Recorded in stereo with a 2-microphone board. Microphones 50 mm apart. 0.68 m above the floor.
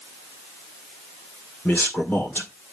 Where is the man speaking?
40° left (ahead or behind), 1.9 m.